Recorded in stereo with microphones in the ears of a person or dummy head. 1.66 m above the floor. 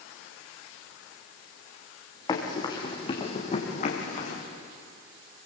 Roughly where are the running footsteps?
Centre.